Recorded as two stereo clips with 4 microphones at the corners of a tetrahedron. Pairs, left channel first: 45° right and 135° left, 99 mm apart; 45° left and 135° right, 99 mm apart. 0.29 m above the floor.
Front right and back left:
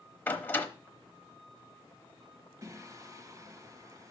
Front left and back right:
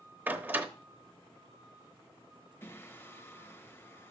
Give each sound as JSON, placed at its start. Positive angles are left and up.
{"t": 0.3, "sound": "a door slam", "azimuth_deg": -90, "distance_m": 0.8}
{"t": 2.6, "sound": "singing", "azimuth_deg": 105, "distance_m": 0.8}